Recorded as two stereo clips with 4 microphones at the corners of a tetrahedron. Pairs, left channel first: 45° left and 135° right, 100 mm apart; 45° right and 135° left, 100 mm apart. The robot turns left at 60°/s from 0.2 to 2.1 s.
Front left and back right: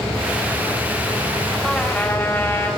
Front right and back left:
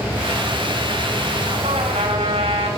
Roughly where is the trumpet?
Behind left.